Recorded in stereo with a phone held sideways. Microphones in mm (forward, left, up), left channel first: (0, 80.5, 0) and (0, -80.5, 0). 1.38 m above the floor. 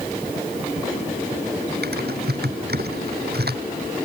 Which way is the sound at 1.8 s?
85° right.